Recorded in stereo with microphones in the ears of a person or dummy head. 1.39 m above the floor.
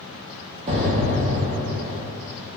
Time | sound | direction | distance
0.7 | an explosion | 40° right (ahead or behind) | 0.8 m